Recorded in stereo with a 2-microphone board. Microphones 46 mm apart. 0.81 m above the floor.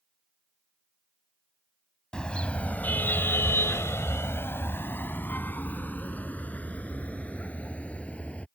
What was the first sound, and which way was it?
A car horn, 20° left (ahead or behind).